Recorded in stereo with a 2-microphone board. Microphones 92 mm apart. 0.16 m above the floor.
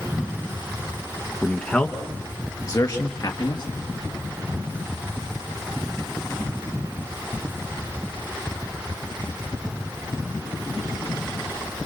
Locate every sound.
1.4 s a man speaking: 5° left (ahead or behind), 2 m; by 3.6 s 55° left (ahead or behind), 3.5 m